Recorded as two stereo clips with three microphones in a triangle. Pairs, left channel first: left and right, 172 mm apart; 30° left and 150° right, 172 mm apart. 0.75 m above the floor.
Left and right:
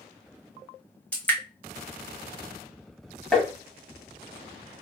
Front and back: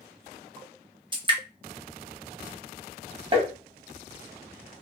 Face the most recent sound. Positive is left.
turn(degrees=175)